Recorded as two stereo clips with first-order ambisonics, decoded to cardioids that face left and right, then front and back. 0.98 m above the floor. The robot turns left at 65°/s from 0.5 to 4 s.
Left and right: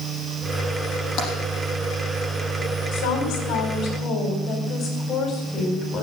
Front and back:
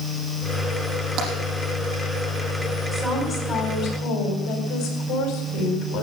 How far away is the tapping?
About 5.5 m.